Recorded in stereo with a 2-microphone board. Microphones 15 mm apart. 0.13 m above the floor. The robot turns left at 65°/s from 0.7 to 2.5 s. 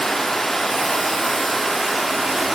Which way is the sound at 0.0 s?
60° left.